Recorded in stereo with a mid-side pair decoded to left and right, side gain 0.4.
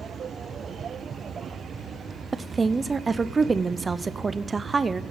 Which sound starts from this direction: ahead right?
A woman speaking, at 2.3 s.